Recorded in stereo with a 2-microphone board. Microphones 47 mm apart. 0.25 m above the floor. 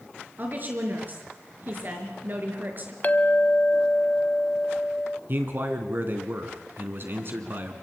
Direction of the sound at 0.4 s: 45° right (ahead or behind).